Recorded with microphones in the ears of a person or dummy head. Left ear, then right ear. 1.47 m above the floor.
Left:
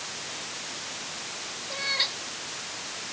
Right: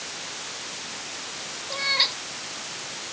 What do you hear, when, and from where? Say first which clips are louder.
1.7 s a cat meowing: right 5 dB; 15° right (ahead or behind)